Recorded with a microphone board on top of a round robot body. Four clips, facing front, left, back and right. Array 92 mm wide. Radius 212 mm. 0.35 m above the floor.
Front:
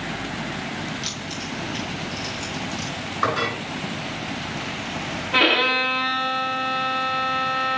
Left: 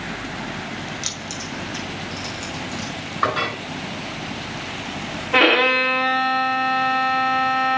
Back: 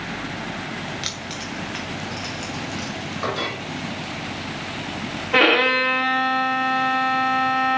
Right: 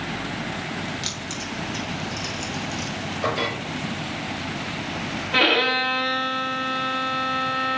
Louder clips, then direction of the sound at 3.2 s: Left 4 dB, front 4 dB; 65° left.